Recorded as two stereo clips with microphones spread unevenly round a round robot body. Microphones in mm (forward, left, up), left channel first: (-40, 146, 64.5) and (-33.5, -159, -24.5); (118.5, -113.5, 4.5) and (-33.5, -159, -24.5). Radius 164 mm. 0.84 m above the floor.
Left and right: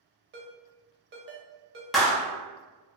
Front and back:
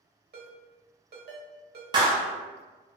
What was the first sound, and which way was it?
A ringtone, 145° right.